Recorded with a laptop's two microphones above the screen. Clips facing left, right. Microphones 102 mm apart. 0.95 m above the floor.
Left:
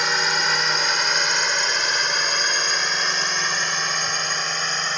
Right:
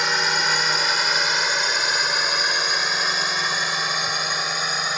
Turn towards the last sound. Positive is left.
turn(degrees=-5)  # may be behind; listen again after turning